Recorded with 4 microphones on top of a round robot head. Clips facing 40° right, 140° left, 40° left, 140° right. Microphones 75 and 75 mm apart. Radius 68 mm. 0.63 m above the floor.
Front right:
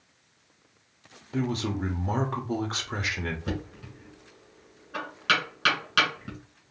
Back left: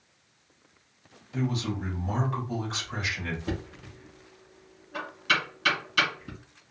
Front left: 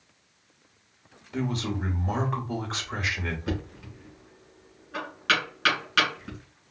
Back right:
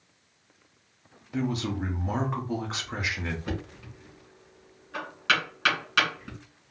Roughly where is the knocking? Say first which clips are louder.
Even, front left 2 dB; ahead right.